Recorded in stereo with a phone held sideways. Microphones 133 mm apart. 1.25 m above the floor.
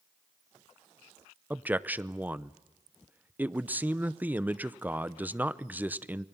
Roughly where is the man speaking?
Centre.